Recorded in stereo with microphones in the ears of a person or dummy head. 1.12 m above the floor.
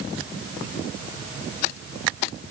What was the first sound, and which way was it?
Only background noise.